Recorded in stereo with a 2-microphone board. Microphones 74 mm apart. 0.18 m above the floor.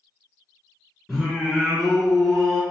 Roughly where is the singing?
Centre.